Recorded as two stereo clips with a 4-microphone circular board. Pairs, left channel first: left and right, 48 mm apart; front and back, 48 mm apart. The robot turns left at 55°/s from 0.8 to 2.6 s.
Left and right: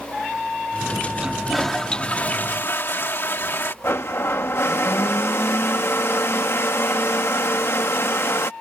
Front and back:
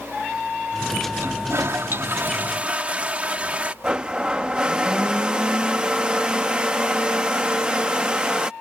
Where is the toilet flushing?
160° right; by 3.7 s 120° left.